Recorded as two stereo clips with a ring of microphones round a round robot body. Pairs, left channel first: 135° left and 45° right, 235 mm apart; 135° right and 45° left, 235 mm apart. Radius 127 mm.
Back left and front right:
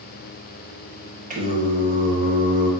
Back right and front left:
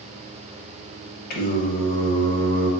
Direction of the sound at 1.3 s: 95° right.